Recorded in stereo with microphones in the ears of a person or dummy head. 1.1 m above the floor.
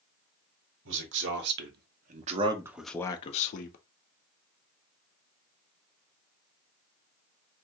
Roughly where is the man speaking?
Right.